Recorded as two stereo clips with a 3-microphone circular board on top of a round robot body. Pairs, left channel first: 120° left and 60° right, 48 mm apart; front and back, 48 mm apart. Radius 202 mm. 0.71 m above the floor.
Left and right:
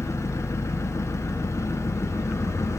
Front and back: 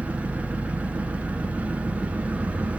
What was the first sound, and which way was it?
An engine running, 120° left.